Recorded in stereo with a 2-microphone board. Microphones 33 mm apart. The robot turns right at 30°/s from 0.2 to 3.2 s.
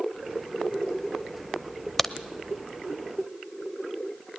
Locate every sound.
2.0 s a crack: 5° left (ahead or behind), 0.8 m